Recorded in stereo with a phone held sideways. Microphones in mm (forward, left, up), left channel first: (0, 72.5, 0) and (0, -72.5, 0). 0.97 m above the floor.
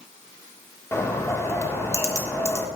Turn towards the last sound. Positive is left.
turn(degrees=20)  # may be behind; listen again after turning